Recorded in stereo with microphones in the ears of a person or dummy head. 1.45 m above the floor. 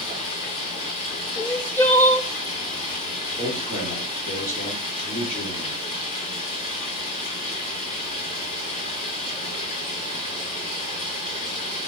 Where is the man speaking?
45° left (ahead or behind), 3 m.